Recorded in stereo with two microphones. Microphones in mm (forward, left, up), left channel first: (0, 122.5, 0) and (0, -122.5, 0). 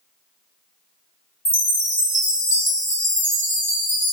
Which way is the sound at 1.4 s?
50° left (ahead or behind).